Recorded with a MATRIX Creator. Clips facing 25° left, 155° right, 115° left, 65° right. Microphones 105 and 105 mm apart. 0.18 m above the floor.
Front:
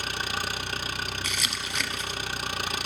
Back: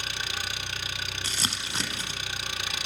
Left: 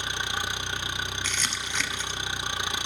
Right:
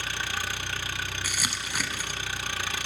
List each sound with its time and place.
0.0 s an engine running: 45° left, 0.8 m
1.2 s crumpling: 140° right, 0.9 m